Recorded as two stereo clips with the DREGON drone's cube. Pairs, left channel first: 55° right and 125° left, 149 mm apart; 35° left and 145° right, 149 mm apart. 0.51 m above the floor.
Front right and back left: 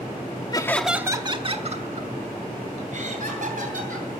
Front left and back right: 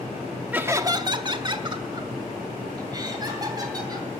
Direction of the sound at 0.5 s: 75° right.